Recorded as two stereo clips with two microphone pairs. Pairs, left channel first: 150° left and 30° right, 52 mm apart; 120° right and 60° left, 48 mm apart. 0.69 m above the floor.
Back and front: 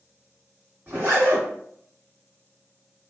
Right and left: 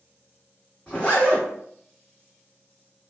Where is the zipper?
70° right, 1.5 m.